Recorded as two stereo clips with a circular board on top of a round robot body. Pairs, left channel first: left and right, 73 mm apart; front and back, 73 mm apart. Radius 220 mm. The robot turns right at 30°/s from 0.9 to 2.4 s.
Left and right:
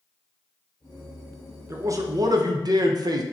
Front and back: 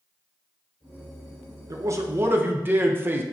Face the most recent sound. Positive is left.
turn(degrees=-120)